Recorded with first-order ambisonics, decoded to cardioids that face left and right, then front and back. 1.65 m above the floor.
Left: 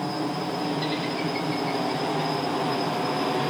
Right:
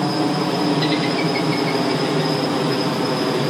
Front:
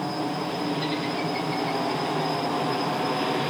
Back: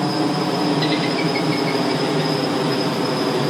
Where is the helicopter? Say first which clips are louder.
Right 8 dB, back 8 dB; 140° right.